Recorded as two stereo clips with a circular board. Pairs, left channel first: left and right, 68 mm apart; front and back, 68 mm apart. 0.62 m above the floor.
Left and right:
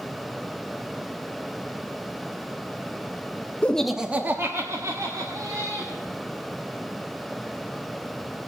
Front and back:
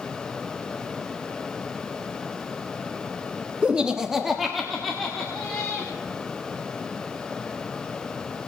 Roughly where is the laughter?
Behind left.